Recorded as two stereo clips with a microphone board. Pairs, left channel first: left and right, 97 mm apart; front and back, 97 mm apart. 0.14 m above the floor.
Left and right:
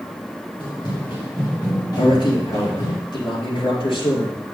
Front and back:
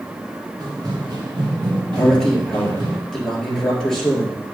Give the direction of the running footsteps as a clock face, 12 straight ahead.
8 o'clock.